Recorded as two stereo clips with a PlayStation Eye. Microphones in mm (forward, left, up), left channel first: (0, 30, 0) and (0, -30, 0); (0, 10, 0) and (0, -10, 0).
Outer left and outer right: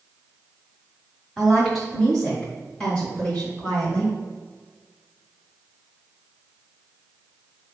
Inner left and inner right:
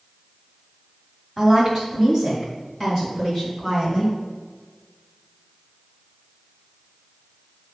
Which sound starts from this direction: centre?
A woman speaking, at 1.4 s.